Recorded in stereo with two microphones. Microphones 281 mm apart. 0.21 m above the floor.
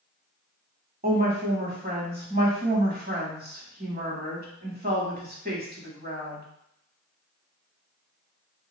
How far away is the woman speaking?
About 1.1 m.